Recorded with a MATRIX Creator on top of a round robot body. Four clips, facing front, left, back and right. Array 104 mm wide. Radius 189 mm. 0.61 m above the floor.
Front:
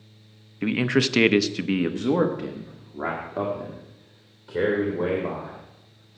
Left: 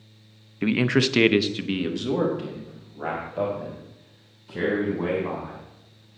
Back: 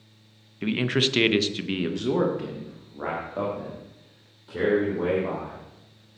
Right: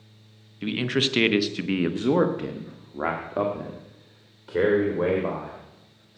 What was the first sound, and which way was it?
A man speaking, 70° left.